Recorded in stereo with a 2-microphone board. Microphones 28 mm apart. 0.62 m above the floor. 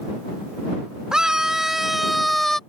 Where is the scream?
25° right (ahead or behind); by 2.6 s 15° left (ahead or behind).